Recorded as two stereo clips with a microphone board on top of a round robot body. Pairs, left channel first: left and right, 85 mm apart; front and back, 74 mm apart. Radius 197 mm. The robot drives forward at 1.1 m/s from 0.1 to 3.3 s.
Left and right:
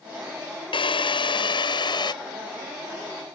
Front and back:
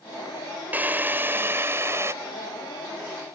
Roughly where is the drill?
Left.